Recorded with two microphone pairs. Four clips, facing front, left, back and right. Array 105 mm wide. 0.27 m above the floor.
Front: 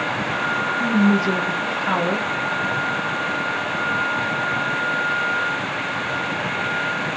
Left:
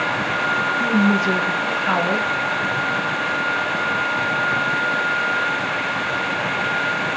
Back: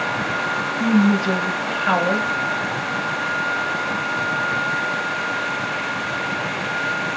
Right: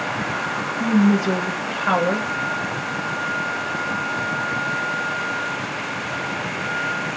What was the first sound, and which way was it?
A woman speaking, 170° right.